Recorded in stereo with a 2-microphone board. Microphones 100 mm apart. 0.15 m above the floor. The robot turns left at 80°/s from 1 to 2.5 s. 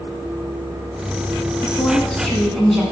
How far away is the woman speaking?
About 1.1 m.